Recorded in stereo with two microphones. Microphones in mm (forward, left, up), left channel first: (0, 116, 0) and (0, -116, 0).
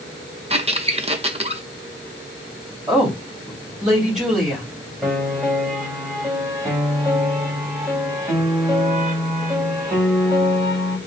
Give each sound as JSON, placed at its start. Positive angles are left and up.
{"t": 0.5, "sound": "a squeak", "side_deg": -25, "distance_m": 0.6}
{"t": 2.9, "sound": "a woman speaking", "side_deg": 0, "distance_m": 2.5}
{"t": 5.0, "sound": "a piano", "side_deg": 0, "distance_m": 2.5}